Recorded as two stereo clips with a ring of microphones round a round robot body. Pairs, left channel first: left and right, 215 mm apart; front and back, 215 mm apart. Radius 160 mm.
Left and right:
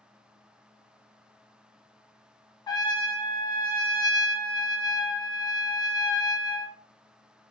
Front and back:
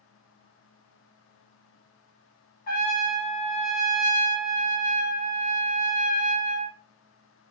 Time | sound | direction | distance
2.7 | a trumpet | 25° left | 0.9 m